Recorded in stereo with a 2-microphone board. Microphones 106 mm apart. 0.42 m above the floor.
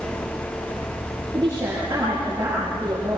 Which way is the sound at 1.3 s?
25° right (ahead or behind).